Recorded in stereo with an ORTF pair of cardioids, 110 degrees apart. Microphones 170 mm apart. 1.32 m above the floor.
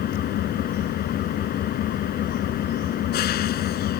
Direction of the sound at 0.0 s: 65° left.